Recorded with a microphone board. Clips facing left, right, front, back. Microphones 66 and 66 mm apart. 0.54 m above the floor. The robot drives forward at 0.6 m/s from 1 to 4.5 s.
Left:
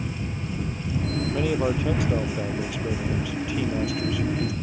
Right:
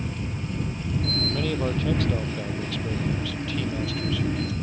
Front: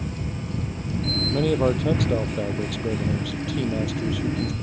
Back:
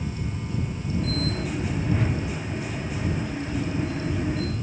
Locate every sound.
1.3 s a man speaking: 15° left